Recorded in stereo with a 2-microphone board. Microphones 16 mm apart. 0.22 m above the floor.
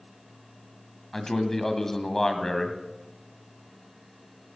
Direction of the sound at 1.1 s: 30° left (ahead or behind).